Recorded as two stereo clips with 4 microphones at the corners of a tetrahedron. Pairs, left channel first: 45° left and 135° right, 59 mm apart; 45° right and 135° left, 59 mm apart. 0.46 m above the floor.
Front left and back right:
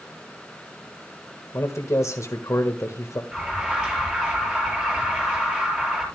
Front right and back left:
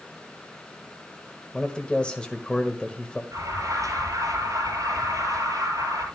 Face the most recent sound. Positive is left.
turn(degrees=155)